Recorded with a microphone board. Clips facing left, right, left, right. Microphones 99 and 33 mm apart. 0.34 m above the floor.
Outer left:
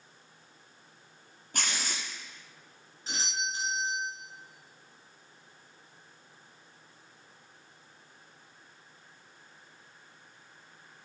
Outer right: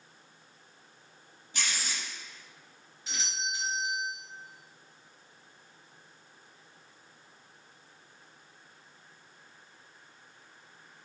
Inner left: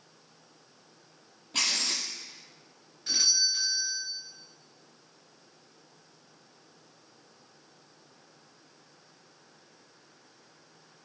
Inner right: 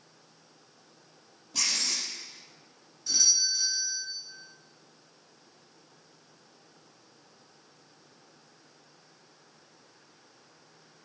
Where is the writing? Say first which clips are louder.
Outer left 1 dB, inner left 2 dB; 50° left (ahead or behind), 5 m.